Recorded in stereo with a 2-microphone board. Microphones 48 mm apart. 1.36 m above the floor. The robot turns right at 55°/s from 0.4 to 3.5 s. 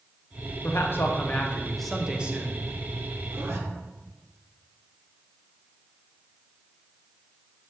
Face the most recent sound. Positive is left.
turn(degrees=-55)  # may be behind; listen again after turning